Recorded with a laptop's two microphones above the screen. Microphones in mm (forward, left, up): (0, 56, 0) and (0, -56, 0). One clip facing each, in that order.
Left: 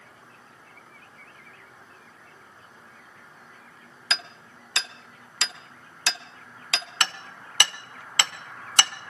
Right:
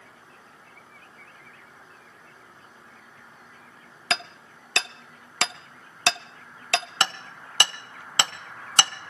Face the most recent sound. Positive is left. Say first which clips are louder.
# right 2 dB
turn(degrees=-30)  # may be behind; listen again after turning